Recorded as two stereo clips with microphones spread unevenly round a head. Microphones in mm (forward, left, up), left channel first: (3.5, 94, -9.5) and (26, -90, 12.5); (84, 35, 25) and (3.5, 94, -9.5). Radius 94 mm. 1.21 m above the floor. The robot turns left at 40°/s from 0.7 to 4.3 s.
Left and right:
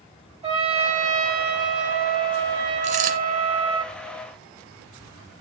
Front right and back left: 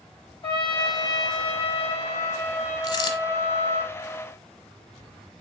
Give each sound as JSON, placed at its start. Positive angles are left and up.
{"t": 0.4, "sound": "a trumpet", "azimuth_deg": -30, "distance_m": 2.5}
{"t": 2.8, "sound": "a dropped coin", "azimuth_deg": -45, "distance_m": 1.8}